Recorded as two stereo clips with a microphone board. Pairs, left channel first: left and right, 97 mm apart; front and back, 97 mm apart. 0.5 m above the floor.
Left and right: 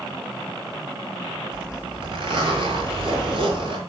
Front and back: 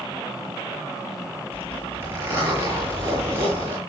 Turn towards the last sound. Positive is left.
turn(degrees=-115)